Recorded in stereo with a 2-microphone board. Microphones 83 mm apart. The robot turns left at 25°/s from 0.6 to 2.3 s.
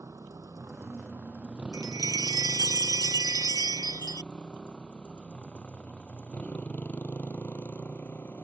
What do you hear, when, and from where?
0.0 s a motorcycle: 45° right (ahead or behind); by 8.4 s 25° left (ahead or behind)
1.7 s a chime: 45° right (ahead or behind); by 4.3 s 55° right (ahead or behind)